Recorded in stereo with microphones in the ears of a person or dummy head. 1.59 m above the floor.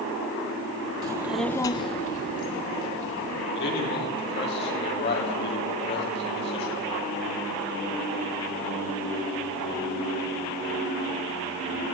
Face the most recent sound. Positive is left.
turn(degrees=50)  # may be behind; listen again after turning